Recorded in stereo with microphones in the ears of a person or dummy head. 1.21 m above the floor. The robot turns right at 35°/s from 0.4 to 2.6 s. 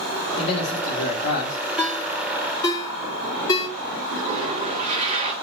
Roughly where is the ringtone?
Centre.